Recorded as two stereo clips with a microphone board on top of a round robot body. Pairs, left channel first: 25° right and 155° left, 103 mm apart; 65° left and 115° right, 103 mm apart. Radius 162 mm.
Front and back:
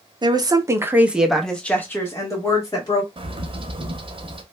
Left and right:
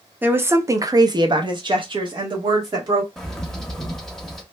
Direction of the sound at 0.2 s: Straight behind.